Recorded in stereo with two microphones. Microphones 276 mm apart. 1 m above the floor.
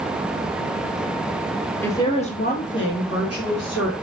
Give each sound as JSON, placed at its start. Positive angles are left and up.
{"t": 1.8, "sound": "a woman speaking", "side_deg": 5, "distance_m": 1.6}